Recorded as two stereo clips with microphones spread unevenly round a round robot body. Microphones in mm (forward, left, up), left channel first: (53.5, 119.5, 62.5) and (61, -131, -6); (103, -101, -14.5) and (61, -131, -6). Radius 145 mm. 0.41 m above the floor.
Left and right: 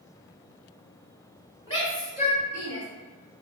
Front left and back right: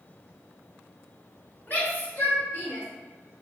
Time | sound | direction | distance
1.7 | a shout | 5° left | 1.8 m